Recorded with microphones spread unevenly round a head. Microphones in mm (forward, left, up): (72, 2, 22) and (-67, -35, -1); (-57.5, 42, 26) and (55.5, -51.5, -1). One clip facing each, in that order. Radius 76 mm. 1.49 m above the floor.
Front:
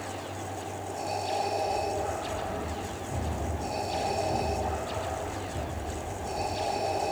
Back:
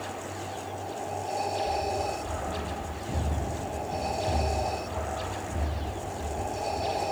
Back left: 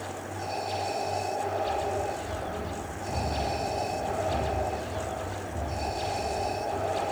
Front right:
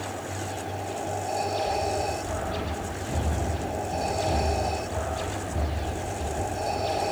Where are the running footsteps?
125° right, 3.5 m; by 7.0 s 60° right, 1.5 m.